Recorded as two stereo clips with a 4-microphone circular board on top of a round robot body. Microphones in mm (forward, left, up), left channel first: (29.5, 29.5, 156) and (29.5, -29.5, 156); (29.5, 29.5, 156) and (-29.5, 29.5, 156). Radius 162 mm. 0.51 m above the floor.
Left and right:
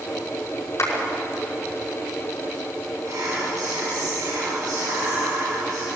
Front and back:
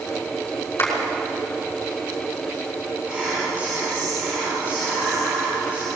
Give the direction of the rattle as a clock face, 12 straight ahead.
I don't hear a rattle.